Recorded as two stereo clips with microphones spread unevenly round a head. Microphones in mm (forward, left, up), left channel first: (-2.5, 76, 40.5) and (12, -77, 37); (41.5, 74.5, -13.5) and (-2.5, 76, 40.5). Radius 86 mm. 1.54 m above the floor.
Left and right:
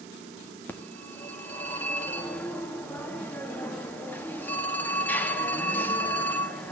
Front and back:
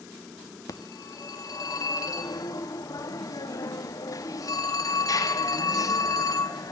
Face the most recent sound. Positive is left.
turn(degrees=15)